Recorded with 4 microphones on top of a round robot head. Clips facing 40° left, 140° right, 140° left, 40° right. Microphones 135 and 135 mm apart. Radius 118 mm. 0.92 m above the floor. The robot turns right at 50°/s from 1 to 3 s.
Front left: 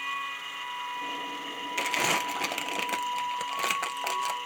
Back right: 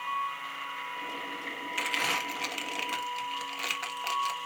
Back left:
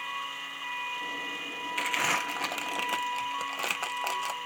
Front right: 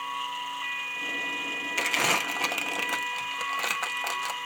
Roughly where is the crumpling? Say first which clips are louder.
Front left 5 dB, front right 3 dB; ahead.